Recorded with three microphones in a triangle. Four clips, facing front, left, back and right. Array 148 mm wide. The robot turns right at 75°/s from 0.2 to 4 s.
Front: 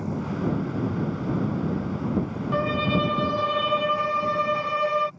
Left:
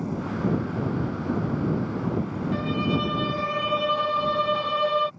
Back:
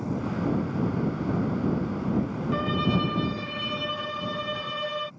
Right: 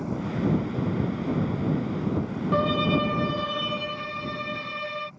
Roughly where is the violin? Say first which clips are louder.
Right 3 dB, front 3 dB; ahead right.